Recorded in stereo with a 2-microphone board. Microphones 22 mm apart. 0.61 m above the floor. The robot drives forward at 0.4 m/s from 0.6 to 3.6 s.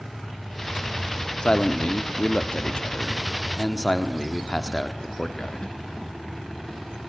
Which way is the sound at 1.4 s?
40° left (ahead or behind).